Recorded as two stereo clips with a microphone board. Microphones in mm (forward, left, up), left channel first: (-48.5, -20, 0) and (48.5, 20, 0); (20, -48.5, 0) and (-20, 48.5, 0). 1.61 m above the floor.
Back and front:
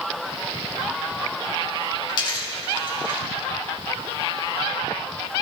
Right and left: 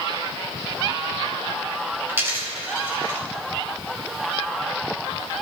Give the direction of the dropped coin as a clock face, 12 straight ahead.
6 o'clock.